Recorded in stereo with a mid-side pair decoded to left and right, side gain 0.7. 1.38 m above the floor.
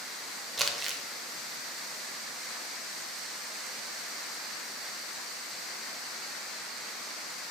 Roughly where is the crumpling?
Ahead.